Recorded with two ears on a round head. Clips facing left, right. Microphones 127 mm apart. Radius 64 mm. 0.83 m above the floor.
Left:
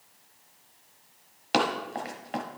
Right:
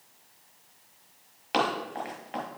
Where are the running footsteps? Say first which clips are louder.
Left 1 dB; 35° left (ahead or behind), 1.0 m.